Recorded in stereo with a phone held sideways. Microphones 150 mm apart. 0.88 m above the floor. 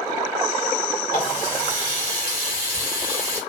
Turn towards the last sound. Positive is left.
turn(degrees=70)  # may be behind; listen again after turning